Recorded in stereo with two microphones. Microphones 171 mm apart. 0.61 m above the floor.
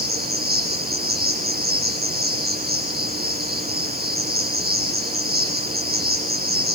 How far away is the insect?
About 8.5 m.